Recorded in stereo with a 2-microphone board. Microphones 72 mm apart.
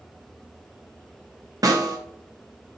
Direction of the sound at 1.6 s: 55° right (ahead or behind).